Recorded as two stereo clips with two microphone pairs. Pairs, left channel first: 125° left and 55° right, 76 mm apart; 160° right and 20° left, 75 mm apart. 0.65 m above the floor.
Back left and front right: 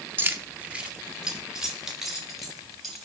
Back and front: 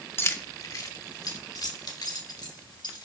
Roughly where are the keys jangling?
Right.